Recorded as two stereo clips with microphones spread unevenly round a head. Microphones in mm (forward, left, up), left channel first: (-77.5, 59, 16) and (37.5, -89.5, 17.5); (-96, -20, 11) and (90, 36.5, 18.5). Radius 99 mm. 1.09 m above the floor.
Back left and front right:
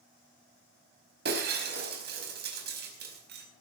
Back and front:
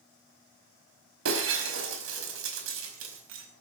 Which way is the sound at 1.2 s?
10° right.